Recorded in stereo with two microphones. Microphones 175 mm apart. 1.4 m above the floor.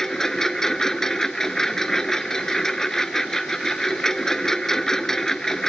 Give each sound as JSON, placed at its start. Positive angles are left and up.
{"t": 0.0, "sound": "a lawn mower", "side_deg": 5}